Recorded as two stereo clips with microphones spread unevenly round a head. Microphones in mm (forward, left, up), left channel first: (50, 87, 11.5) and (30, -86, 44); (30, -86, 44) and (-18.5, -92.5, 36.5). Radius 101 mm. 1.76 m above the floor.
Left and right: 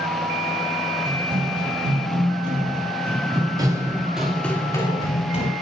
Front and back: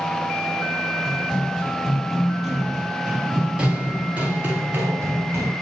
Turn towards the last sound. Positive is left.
turn(degrees=135)